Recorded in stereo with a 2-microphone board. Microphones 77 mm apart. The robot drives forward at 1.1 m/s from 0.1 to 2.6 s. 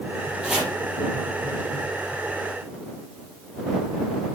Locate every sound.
0.4 s chopping: 10° right (ahead or behind), 4.5 m